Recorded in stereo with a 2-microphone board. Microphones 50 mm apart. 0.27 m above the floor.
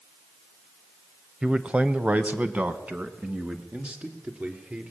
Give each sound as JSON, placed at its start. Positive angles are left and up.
{"t": 1.4, "sound": "a man speaking", "side_deg": -20, "distance_m": 1.0}